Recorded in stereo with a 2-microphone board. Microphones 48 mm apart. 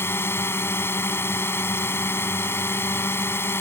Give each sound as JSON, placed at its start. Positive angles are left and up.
{"t": 0.0, "sound": "a drone", "side_deg": 65}